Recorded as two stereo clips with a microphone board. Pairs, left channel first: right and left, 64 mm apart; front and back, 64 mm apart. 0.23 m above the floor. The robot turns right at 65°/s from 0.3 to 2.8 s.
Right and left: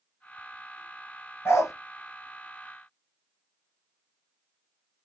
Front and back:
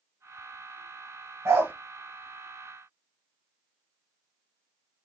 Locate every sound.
1.4 s a dog barking: 145° right, 1.0 m; by 1.7 s 125° right, 1.0 m